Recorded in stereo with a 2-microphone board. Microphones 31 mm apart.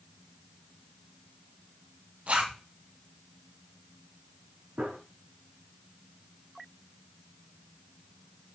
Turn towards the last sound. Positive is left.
turn(degrees=-65)  # may be behind; listen again after turning